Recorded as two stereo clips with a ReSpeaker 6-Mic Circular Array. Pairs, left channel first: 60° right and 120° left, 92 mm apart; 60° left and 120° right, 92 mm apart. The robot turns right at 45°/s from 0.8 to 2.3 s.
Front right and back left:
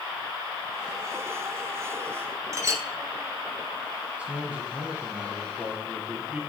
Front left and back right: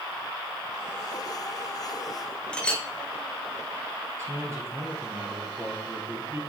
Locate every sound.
2.5 s a clink: 130° left, 0.8 m
4.2 s a man speaking: 170° right, 1.5 m